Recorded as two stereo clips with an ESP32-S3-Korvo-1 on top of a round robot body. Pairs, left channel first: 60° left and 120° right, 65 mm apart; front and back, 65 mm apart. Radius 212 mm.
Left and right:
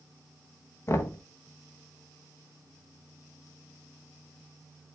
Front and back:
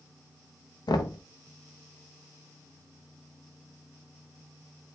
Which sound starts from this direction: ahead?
Knocking, at 0.9 s.